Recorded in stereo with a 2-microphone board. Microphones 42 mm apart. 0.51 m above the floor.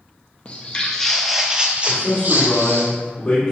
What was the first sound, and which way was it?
Footsteps, 30° left (ahead or behind).